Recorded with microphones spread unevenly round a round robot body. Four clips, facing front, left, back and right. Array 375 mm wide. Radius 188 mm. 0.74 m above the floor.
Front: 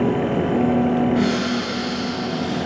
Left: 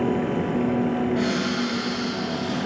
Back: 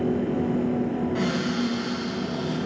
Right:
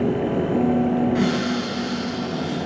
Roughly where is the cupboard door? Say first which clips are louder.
Right 2 dB, front 5 dB; behind right.